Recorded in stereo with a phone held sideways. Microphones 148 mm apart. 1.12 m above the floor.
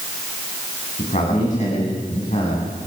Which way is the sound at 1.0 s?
55° left (ahead or behind).